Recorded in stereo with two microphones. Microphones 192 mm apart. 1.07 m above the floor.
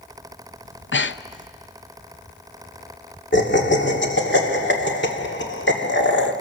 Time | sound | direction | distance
0.7 | breathing | 80° left | 0.6 m
3.3 | laughter | 70° left (ahead or behind) | 2.5 m